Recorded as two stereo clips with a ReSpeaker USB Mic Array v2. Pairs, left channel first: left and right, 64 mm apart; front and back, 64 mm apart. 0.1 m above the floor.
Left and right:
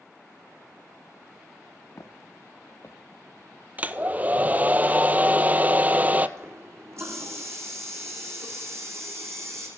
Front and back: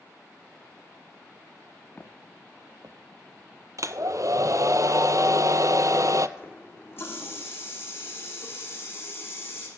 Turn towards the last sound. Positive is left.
turn(degrees=-50)